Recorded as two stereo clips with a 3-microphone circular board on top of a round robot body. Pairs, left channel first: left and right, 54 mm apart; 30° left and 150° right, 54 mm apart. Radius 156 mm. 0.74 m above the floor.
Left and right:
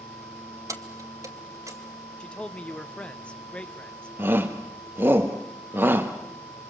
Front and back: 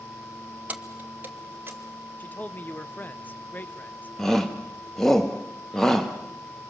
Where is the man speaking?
35° left, 1.2 m.